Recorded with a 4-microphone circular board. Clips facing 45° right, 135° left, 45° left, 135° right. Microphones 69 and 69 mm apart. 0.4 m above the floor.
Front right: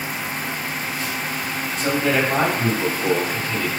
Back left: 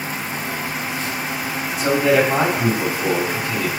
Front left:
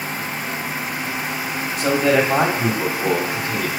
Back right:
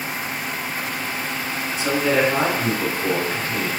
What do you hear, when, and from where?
1.8 s a man speaking: 50° left, 1.9 m; by 3.7 s 35° left, 2.5 m